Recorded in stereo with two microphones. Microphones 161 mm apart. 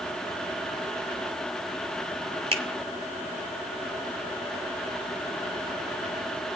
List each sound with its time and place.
2.5 s a finger snap: 35° right (ahead or behind), 1.0 m